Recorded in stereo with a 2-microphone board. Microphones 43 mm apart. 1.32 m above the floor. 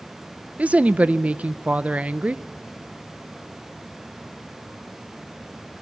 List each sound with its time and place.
0.6 s a woman speaking: 35° right (ahead or behind), 0.6 m